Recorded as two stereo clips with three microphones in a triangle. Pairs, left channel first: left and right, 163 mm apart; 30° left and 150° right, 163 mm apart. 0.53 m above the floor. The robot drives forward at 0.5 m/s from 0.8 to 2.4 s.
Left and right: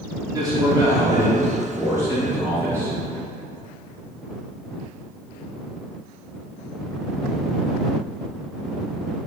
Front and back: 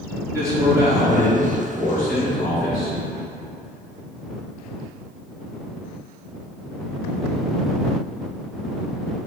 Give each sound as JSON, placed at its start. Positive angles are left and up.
{"t": 0.3, "sound": "a man speaking", "azimuth_deg": -105, "distance_m": 0.9}